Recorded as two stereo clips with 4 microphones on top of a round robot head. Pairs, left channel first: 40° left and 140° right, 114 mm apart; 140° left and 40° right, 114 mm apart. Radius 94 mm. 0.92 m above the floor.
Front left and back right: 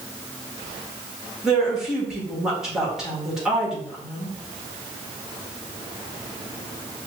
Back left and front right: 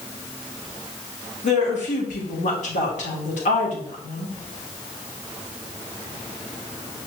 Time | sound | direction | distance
1.4 | a woman speaking | 135° left | 1.5 m